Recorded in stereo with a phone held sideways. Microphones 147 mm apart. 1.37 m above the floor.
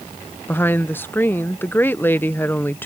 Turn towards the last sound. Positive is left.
turn(degrees=15)  # may be behind; listen again after turning